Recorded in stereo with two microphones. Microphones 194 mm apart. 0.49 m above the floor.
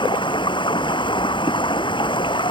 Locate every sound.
0.0 s running water: 25° left (ahead or behind)